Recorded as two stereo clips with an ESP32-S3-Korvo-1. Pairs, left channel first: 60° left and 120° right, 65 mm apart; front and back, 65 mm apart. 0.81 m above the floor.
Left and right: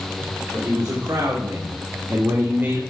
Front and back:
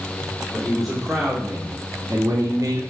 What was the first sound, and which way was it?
A man speaking, 90° right.